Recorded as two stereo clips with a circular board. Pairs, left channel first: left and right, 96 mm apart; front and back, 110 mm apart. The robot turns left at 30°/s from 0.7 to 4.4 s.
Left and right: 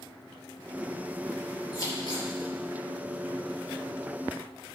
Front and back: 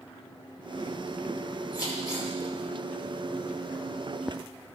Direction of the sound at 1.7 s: 145° left.